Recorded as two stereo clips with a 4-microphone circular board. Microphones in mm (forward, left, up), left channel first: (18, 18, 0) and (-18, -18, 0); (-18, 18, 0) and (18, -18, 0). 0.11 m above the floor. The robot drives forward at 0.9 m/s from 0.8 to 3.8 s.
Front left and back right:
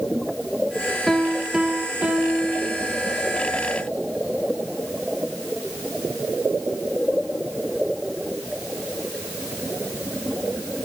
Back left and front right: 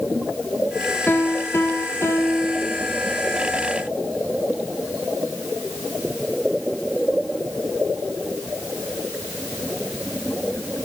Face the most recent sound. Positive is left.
turn(degrees=170)